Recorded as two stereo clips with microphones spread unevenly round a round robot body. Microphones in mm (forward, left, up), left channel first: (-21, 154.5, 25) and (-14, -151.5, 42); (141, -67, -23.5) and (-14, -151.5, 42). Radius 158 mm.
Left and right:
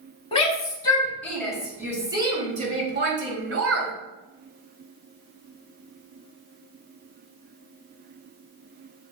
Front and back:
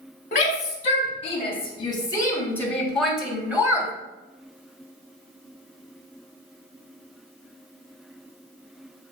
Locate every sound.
0.3 s a shout: 25° left, 3 m; by 3.9 s 65° right, 2.5 m